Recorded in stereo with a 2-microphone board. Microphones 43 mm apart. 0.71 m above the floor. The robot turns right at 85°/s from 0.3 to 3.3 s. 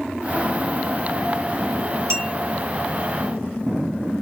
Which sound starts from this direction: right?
A clink, at 2.1 s.